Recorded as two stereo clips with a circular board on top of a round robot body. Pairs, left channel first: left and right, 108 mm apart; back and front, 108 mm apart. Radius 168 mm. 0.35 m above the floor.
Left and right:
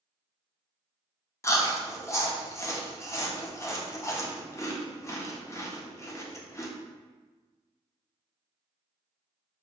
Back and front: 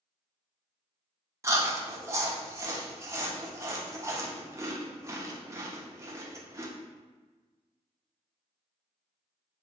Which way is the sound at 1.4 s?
45° left.